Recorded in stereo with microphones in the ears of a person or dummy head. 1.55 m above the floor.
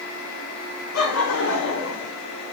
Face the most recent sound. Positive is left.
turn(degrees=80)